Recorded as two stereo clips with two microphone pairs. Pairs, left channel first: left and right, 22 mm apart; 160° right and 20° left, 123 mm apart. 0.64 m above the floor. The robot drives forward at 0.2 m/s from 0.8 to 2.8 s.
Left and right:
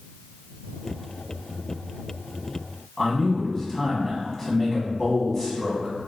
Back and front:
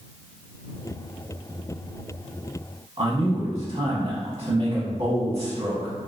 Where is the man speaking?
5° left, 0.7 m.